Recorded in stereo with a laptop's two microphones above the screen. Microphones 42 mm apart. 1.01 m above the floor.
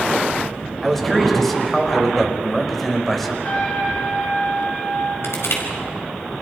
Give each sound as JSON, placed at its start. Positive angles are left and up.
{"t": 0.8, "sound": "a man speaking", "side_deg": 5, "distance_m": 5.0}
{"t": 3.4, "sound": "a trumpet", "side_deg": 35, "distance_m": 6.5}
{"t": 5.2, "sound": "crushing", "side_deg": 80, "distance_m": 5.0}